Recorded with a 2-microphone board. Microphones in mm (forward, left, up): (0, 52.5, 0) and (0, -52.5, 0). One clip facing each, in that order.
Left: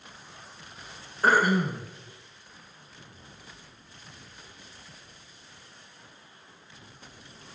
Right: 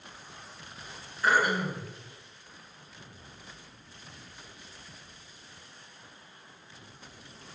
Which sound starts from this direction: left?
Throat clearing, at 1.2 s.